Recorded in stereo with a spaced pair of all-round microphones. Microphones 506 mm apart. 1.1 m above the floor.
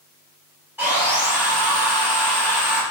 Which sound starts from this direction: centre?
Sawing, at 0.8 s.